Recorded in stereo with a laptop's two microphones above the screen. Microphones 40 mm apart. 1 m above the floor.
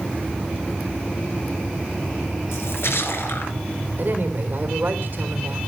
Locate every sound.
2.5 s a splash: 70° left (ahead or behind), 2.5 m
4.0 s a woman speaking: 50° right (ahead or behind), 3.5 m